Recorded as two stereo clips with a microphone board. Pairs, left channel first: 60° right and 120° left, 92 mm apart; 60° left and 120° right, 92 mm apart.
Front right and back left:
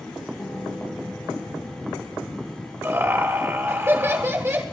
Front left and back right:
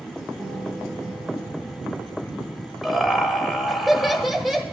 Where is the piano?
115° right, 6 m.